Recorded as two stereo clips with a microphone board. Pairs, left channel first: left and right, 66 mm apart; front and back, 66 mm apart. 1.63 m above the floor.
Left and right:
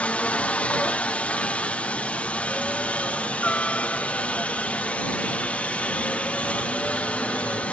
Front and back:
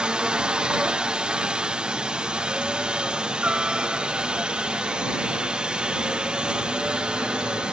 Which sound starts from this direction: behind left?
A helicopter, at 0.0 s.